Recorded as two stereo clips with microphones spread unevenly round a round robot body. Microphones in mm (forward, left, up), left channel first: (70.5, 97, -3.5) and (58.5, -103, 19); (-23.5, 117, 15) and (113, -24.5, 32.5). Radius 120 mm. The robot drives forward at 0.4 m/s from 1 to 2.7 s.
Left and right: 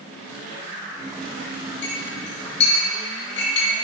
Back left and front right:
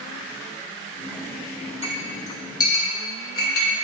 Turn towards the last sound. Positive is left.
turn(degrees=95)